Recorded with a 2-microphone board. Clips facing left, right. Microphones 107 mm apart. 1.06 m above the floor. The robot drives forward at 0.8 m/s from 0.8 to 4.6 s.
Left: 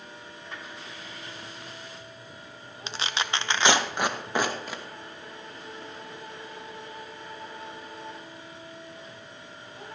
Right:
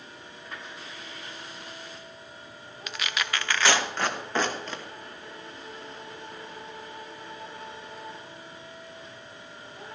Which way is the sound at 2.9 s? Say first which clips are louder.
Left 1 dB; 25° left (ahead or behind).